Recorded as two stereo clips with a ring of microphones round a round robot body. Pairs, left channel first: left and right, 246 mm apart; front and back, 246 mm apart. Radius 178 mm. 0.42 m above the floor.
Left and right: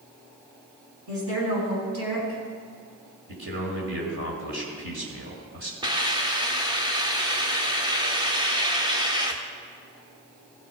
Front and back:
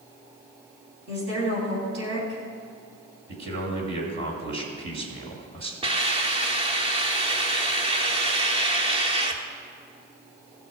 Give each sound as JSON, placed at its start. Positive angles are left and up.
{"t": 1.1, "sound": "a woman speaking", "azimuth_deg": -130, "distance_m": 4.0}
{"t": 3.3, "sound": "a man speaking", "azimuth_deg": -135, "distance_m": 2.0}
{"t": 5.8, "sound": "a hiss", "azimuth_deg": -140, "distance_m": 0.9}